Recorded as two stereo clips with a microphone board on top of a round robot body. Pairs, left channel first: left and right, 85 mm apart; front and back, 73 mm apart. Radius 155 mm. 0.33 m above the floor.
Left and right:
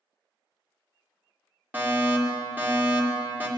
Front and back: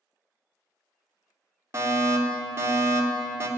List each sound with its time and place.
1.7 s a fire alarm: 150° right, 3 m